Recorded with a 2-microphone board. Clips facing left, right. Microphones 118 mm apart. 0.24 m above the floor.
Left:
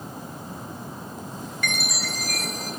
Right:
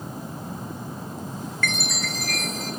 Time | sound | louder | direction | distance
1.6 | a chime | right 1 dB | 15° left (ahead or behind) | 1.4 m